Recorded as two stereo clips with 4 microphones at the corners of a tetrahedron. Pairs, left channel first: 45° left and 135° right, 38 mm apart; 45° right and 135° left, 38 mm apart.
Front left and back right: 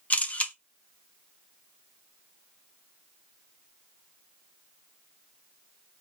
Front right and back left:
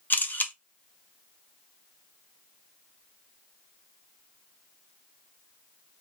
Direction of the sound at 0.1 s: 10° right.